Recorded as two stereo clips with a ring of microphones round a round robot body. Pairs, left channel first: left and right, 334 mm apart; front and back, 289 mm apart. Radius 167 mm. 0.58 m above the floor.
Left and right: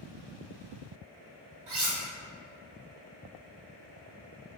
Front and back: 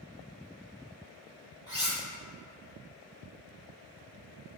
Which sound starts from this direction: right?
Cutlery clinking, at 1.7 s.